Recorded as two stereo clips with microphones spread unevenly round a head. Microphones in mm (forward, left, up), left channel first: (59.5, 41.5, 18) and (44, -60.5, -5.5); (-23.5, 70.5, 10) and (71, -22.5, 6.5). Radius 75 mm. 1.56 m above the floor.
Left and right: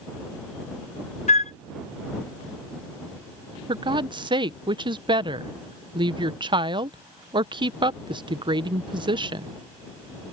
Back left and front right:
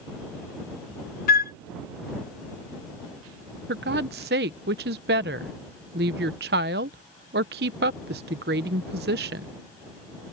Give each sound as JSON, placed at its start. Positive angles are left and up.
{"t": 1.3, "sound": "a flute", "azimuth_deg": 125}
{"t": 3.7, "sound": "a woman speaking", "azimuth_deg": -55}